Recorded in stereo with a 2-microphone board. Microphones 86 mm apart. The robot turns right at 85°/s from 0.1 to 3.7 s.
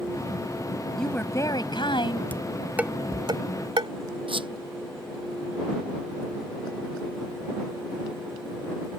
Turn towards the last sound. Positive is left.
turn(degrees=-90)